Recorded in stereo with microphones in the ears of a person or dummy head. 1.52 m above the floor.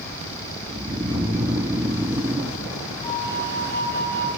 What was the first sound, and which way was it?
Snoring, 10° right (ahead or behind).